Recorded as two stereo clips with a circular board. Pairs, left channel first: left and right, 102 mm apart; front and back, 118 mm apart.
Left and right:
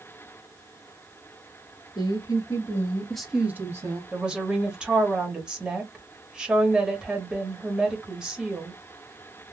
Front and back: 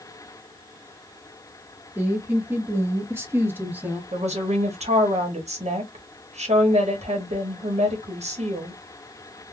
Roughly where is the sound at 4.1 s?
Behind.